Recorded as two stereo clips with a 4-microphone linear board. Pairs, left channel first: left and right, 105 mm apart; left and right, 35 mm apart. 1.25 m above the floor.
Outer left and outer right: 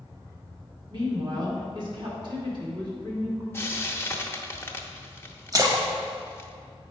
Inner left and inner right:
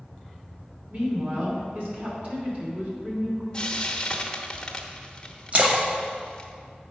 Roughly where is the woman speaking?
Right.